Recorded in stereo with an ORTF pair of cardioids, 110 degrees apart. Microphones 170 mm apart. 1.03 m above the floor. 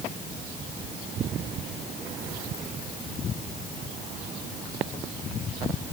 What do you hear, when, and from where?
Only background noise.